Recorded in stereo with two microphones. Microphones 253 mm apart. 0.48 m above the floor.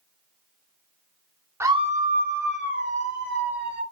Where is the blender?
No blender in this recording.